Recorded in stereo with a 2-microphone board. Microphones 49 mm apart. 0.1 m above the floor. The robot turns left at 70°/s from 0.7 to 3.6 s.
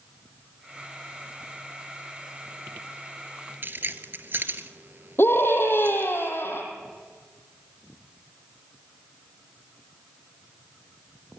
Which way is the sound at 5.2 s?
55° left (ahead or behind).